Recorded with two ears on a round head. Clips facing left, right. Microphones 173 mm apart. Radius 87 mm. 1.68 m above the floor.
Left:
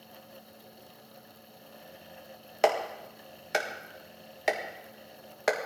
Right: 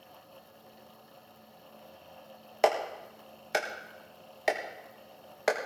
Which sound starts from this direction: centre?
A clap, at 2.6 s.